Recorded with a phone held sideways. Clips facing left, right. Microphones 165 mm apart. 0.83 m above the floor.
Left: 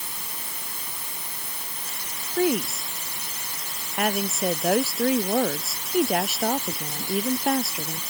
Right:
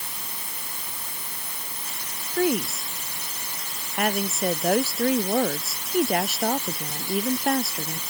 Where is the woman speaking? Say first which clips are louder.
Even; 5° left (ahead or behind).